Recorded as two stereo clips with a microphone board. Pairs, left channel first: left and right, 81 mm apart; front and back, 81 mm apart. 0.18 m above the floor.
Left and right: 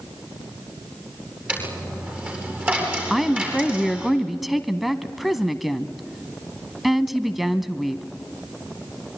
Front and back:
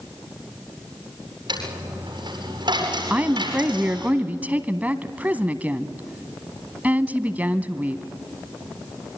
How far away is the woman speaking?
About 1.0 m.